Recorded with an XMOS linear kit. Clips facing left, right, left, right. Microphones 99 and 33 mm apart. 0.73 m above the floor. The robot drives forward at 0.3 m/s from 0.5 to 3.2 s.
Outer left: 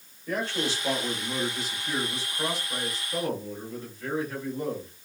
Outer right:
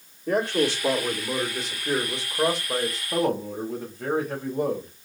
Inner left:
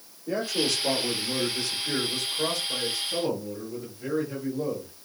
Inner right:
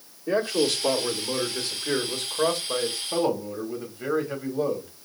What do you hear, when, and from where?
0.3 s a man speaking: 60° right (ahead or behind), 2 m; by 4.9 s 70° right (ahead or behind), 1.9 m